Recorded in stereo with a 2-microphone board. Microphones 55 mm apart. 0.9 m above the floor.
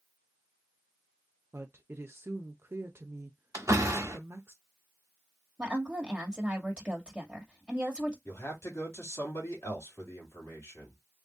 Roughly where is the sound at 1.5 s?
Right.